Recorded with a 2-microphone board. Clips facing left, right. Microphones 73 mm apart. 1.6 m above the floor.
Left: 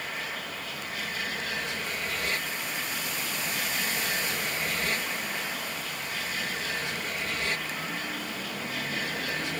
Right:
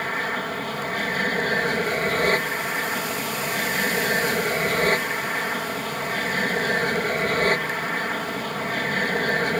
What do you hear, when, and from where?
0.0 s an aircraft: 45° right (ahead or behind)